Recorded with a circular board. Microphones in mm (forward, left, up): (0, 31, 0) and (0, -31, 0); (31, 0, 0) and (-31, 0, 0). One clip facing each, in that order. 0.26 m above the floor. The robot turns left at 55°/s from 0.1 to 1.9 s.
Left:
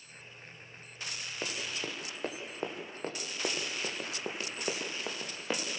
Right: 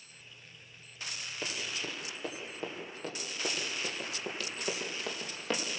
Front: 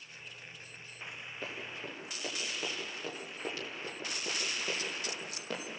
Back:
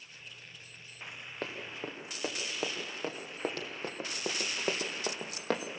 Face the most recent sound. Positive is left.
turn(degrees=175)